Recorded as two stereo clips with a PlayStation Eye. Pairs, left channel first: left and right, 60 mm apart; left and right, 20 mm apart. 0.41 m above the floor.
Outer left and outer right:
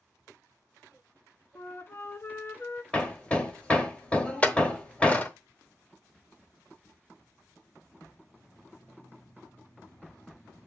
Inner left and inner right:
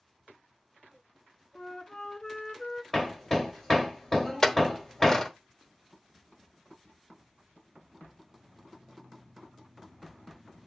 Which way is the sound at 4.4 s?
25° left (ahead or behind).